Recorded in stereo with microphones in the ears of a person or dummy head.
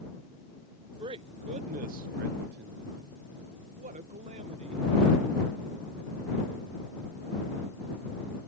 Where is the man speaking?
25° right (ahead or behind); by 4.9 s 30° right (ahead or behind).